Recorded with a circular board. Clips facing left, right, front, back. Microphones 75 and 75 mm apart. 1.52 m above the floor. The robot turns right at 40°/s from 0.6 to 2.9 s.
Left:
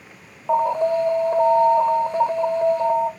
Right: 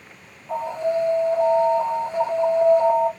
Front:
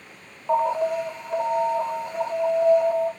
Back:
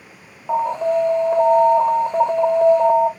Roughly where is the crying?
I don't hear crying.